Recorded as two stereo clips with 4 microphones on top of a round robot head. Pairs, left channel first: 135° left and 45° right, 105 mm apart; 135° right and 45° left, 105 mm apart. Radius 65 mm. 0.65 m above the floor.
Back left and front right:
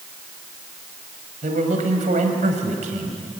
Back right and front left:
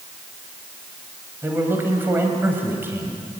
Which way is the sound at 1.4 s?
25° right.